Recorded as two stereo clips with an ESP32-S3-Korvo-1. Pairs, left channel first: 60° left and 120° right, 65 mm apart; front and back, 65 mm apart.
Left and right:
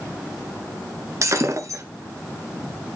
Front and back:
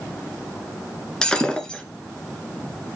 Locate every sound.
1.2 s breaking glass: 80° right, 1.4 m